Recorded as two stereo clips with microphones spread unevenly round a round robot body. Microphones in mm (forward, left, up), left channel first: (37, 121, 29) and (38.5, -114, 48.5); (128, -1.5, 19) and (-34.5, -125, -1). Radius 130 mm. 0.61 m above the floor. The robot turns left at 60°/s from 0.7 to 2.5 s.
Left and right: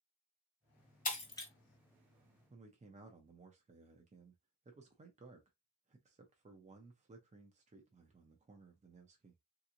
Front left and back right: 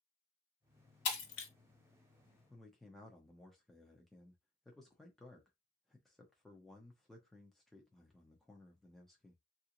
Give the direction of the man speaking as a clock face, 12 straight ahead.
2 o'clock.